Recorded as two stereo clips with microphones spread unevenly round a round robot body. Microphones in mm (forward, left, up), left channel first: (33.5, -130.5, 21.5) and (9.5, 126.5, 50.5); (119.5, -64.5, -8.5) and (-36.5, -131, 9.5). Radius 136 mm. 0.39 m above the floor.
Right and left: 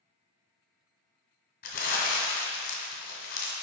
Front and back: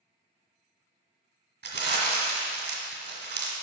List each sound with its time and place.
1.6 s crumpling: 140° right, 1.7 m